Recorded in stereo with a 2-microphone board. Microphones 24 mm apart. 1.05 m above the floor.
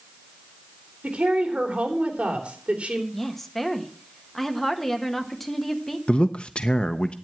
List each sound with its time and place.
1.0 s a woman speaking: 60° right (ahead or behind), 3.5 m
3.1 s a woman speaking: 10° left (ahead or behind), 1.5 m
6.1 s a man speaking: 50° left (ahead or behind), 0.6 m